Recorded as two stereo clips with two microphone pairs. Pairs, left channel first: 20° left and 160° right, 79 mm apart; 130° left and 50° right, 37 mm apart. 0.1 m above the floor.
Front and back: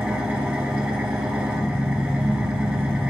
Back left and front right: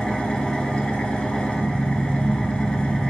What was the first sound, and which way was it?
An engine running, 160° left.